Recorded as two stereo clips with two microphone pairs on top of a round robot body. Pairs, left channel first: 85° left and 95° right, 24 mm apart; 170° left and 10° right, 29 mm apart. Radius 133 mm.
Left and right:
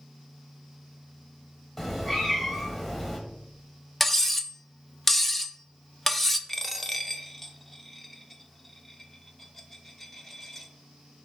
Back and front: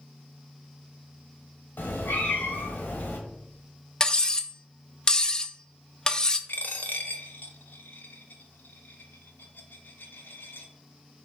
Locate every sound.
1.8 s a cat meowing: 165° left, 1.3 m
4.0 s cutlery clinking: 150° left, 0.6 m
6.5 s a dropped coin: 170° left, 0.6 m